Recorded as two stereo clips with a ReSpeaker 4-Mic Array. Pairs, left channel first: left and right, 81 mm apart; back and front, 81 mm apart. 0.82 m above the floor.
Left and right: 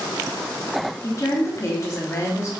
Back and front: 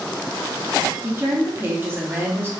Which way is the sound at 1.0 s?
55° left.